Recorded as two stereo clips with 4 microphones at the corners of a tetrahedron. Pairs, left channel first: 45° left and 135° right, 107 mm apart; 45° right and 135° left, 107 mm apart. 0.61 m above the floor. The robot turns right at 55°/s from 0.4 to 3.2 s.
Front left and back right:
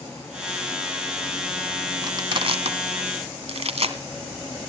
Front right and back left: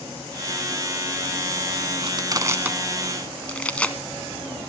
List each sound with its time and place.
2.0 s crushing: 170° left, 1.4 m; by 4.0 s 125° right, 1.4 m